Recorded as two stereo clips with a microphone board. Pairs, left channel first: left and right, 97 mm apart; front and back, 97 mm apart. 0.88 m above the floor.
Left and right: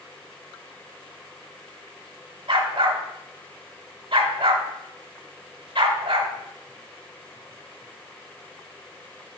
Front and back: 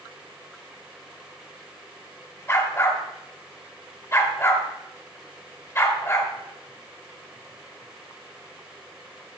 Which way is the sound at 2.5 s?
60° right.